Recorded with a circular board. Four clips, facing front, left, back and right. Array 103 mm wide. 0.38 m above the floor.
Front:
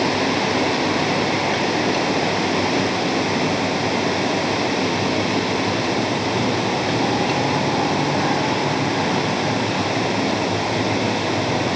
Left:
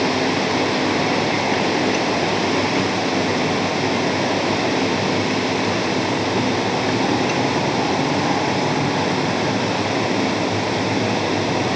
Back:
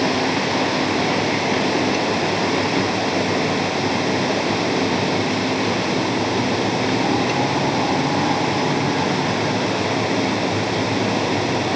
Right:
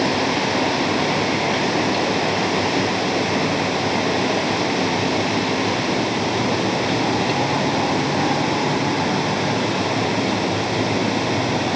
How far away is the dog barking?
No dog barking in this recording.